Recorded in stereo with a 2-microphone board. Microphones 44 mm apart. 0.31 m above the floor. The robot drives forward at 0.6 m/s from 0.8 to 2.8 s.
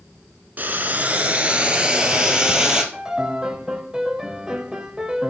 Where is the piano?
15° right (ahead or behind), 0.8 m.